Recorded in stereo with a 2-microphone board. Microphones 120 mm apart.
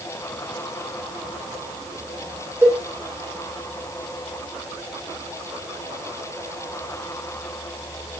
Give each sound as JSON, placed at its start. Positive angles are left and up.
{"t": 2.6, "sound": "a cowbell", "side_deg": -20, "distance_m": 9.0}